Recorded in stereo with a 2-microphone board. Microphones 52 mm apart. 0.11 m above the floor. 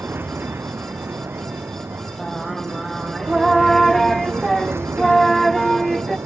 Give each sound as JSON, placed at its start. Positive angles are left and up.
{"t": 0.0, "sound": "an aircraft", "side_deg": -45}
{"t": 2.2, "sound": "singing", "side_deg": 5}